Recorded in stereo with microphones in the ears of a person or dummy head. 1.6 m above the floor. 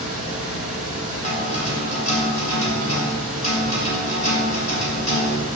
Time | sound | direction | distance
0.0 | a fan | 75° left (ahead or behind) | 4 m
1.2 | a guitar | 35° left (ahead or behind) | 2.5 m